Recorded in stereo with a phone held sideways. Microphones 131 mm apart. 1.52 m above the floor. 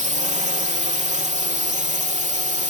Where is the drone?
65° right (ahead or behind).